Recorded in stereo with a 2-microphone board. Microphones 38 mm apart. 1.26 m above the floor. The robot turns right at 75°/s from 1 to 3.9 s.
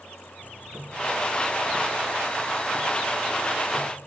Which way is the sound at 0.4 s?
110° right.